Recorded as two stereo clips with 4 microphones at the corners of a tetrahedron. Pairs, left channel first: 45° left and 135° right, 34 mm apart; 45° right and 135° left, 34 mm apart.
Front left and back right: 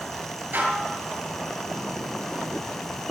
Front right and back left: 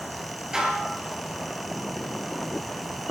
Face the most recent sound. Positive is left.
turn(degrees=-155)